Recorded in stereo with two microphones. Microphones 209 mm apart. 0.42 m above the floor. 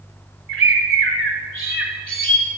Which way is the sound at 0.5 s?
75° right (ahead or behind).